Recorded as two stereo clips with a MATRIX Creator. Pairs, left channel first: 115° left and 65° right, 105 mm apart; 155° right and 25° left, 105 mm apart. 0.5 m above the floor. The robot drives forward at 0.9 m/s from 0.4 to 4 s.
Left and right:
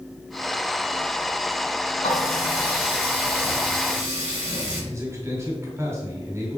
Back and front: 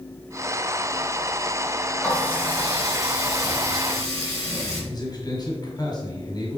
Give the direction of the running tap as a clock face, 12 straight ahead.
8 o'clock.